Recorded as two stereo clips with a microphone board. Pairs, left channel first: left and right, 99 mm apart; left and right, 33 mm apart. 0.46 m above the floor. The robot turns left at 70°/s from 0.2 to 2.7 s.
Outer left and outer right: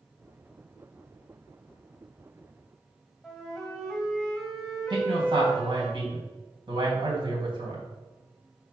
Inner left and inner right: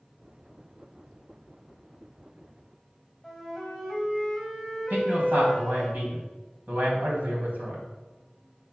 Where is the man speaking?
55° right (ahead or behind), 3 m.